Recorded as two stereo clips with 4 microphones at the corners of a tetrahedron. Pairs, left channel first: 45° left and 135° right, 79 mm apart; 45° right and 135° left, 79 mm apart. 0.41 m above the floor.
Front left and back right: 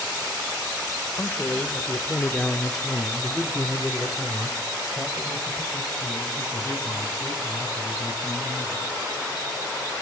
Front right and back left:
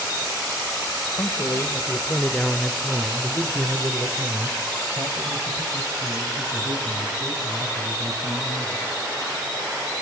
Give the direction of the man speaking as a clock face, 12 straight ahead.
1 o'clock.